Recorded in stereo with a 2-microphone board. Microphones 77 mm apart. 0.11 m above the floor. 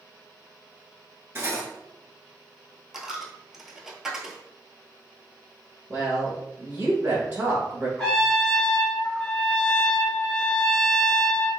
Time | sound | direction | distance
1.4 | cutlery clinking | 35° right (ahead or behind) | 0.9 m
2.9 | a dropped coin | 5° right (ahead or behind) | 0.6 m
5.9 | a woman speaking | 20° right (ahead or behind) | 1.1 m
8.0 | a trumpet | 10° left (ahead or behind) | 1.7 m